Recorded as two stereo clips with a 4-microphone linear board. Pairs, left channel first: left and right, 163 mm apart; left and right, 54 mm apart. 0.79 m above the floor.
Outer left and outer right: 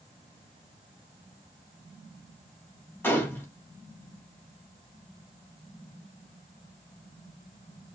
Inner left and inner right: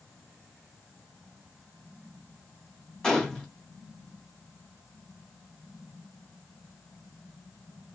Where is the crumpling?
I don't hear crumpling.